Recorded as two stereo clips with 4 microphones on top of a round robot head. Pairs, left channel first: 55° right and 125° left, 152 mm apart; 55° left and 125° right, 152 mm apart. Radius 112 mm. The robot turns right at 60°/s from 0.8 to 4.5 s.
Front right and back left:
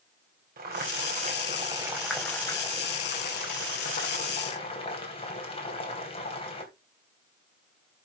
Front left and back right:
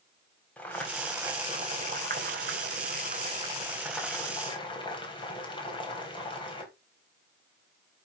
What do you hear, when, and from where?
0.6 s boiling: 135° left, 3.5 m; by 6.7 s 5° right, 3.5 m